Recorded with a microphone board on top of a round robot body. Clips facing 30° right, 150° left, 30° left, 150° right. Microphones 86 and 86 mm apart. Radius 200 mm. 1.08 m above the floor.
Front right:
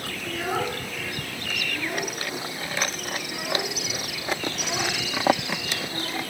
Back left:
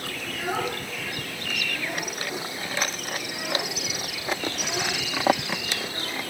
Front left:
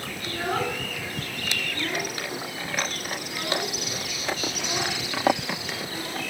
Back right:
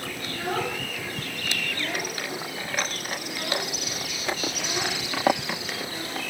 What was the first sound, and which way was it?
A child speaking, 35° right.